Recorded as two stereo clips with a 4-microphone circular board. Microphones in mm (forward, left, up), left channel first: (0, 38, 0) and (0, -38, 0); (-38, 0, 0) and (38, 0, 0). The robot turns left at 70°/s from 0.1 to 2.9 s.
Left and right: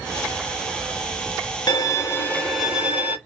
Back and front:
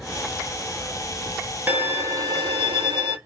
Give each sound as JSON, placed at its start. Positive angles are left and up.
{"t": 1.7, "sound": "a violin", "azimuth_deg": 65, "distance_m": 0.7}